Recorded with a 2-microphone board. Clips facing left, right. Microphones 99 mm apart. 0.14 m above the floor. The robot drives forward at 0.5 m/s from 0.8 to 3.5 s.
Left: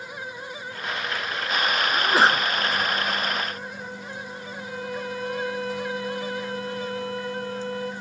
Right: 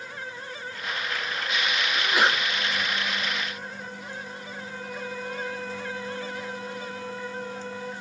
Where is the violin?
70° left (ahead or behind), 3.5 m.